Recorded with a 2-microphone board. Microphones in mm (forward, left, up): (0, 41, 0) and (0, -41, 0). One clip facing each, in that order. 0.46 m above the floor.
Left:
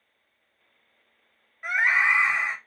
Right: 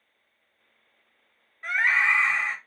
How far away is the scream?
About 0.8 m.